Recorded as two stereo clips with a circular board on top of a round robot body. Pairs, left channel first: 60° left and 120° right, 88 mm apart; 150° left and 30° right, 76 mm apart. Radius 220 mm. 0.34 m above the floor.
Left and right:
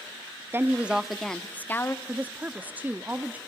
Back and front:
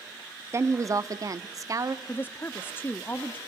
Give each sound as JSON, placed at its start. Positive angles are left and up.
{"t": 0.5, "sound": "a woman speaking", "azimuth_deg": -65, "distance_m": 1.0}
{"t": 2.0, "sound": "a woman speaking", "azimuth_deg": -175, "distance_m": 0.8}